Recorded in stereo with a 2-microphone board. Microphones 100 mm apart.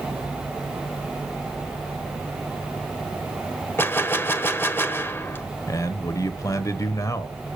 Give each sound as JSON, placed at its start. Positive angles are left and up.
{"t": 3.8, "sound": "a gunshot", "side_deg": 20, "distance_m": 0.8}
{"t": 5.7, "sound": "a man speaking", "side_deg": 35, "distance_m": 1.0}